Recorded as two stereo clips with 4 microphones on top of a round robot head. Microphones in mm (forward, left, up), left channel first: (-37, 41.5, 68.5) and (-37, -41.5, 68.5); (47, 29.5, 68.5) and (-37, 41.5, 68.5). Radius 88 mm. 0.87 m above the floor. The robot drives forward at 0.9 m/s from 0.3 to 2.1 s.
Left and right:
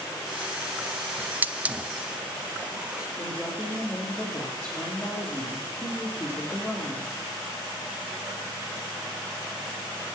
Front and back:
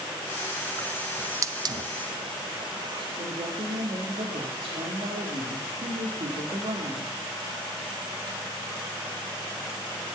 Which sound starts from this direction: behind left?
A woman speaking, at 3.2 s.